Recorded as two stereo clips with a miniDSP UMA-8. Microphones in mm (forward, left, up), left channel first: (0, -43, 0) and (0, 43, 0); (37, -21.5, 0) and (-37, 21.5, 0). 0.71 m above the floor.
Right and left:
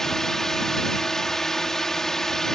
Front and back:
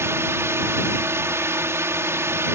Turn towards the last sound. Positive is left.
turn(degrees=-175)